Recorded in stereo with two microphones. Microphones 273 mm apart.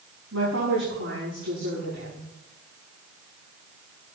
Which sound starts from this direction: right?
A woman speaking, at 0.3 s.